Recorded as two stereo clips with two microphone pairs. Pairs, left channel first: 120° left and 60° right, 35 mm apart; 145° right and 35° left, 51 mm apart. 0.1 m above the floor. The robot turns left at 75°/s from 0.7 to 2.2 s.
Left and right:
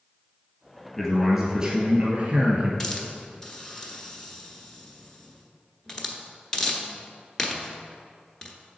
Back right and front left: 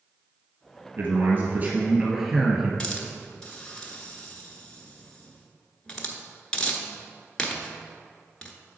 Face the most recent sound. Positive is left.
turn(degrees=170)